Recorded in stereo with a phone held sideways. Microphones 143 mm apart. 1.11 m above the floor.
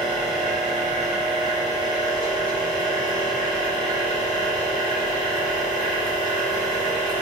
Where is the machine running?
75° left (ahead or behind), 3.5 m.